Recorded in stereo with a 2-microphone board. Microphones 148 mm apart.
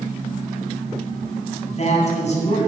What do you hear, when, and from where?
1.6 s a man speaking: 50° left (ahead or behind), 3 m